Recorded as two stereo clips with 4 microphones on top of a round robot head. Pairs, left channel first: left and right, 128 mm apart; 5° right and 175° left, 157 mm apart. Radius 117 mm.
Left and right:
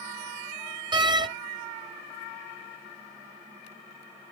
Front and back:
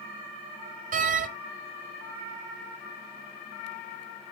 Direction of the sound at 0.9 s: 145° right.